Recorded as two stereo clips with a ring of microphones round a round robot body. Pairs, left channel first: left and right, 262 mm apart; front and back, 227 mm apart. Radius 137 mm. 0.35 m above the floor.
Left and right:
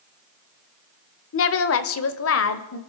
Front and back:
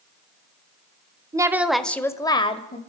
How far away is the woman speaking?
About 1.1 m.